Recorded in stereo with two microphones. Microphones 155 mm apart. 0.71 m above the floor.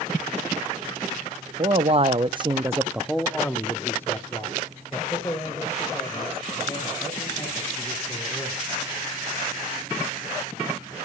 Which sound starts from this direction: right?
A man speaking, at 1.6 s.